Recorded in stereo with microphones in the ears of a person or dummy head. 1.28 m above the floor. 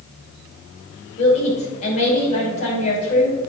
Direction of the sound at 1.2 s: 40° left (ahead or behind).